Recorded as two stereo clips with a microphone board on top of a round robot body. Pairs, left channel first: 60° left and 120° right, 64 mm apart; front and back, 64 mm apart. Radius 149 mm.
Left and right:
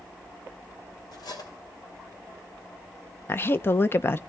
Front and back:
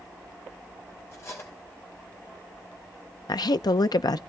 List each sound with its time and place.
1.1 s cutlery clinking: 50° left, 3 m
3.3 s a woman speaking: 5° left, 0.6 m